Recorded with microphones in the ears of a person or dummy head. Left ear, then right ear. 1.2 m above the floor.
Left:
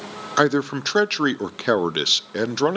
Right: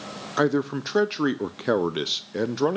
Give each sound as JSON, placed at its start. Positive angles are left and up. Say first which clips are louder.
{"t": 0.4, "sound": "a man speaking", "louder": "left 4 dB", "side_deg": 25, "distance_m": 0.6}